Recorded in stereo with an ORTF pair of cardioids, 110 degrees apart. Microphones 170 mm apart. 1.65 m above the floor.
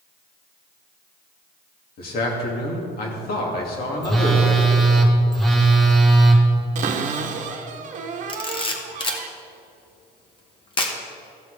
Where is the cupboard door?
45° right, 1.1 m.